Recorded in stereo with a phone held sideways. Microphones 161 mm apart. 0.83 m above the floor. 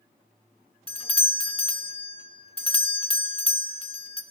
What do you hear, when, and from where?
0.9 s a doorbell: 35° left (ahead or behind), 1.2 m